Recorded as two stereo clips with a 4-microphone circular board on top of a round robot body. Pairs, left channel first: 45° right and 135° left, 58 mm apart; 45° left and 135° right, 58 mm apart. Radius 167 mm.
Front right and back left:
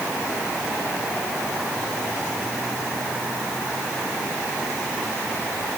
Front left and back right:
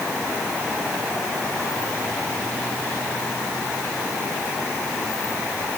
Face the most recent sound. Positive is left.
No sound to turn to.